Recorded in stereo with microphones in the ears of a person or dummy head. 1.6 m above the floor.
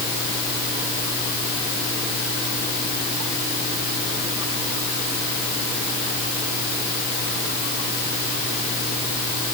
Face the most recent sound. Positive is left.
No sound to turn to.